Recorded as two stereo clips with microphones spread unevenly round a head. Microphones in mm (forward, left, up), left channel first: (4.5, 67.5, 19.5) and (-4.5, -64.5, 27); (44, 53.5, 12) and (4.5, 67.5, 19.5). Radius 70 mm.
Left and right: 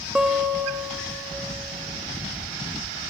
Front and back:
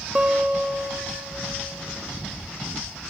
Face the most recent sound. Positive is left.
turn(degrees=-170)